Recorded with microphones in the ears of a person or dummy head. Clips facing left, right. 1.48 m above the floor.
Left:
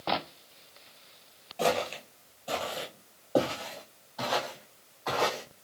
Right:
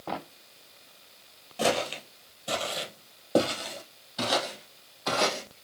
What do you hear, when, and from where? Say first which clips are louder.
1.6 s footsteps: right 1 dB; 15° right (ahead or behind), 1.8 m; by 5.6 s 50° right (ahead or behind), 3.5 m